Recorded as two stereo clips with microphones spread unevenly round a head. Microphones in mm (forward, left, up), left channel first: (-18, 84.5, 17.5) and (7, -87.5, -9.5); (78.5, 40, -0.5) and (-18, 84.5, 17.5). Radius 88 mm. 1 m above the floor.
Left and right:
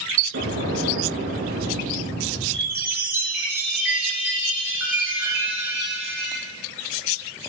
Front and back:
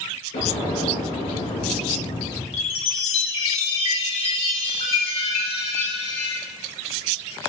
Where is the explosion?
55° right, 5.5 m.